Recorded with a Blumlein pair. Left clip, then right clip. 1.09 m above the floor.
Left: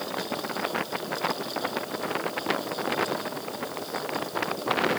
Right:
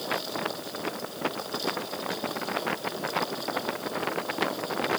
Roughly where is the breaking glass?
I don't hear breaking glass.